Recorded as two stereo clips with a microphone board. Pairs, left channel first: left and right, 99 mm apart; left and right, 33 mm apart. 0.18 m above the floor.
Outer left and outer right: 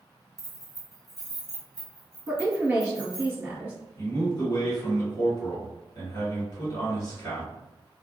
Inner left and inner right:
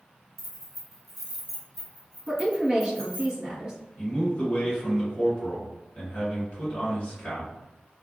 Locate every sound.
0.4 s keys jangling: 5° right (ahead or behind), 0.9 m; by 3.3 s 5° left (ahead or behind), 1.4 m
2.3 s a woman speaking: 25° right (ahead or behind), 1.5 m
4.0 s a man speaking: 40° left (ahead or behind), 1.6 m